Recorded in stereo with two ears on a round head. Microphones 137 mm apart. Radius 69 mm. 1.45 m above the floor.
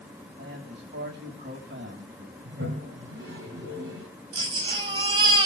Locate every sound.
0.4 s a man speaking: 70° right (ahead or behind), 9 m
2.5 s a toilet flushing: 80° right, 6.5 m
4.3 s a baby crying: 30° right (ahead or behind), 4 m